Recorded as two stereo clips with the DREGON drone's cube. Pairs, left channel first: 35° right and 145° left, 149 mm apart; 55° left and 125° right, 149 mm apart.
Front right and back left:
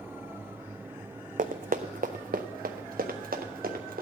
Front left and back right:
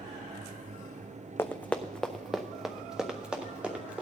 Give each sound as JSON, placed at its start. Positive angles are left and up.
{"t": 1.4, "sound": "running footsteps", "azimuth_deg": 130, "distance_m": 0.7}